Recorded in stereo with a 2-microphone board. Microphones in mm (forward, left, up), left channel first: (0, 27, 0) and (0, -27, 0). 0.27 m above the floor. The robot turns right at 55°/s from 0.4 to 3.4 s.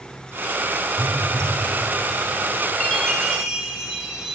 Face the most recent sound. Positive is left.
turn(degrees=-170)